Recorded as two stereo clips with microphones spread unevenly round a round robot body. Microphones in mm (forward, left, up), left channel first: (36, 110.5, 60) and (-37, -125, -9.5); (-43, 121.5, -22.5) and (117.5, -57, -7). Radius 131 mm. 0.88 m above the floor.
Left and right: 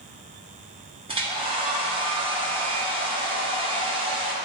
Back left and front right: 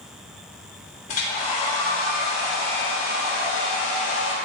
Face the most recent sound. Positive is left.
turn(degrees=-165)